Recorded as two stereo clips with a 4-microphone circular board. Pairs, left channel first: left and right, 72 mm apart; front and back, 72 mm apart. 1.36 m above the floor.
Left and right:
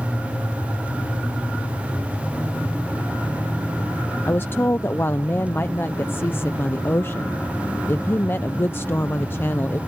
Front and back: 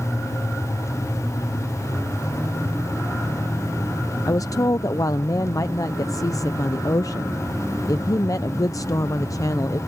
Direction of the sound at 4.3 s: 35° left.